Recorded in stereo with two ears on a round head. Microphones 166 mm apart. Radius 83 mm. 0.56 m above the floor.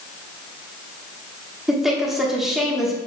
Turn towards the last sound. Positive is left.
turn(degrees=0)  # may be behind; listen again after turning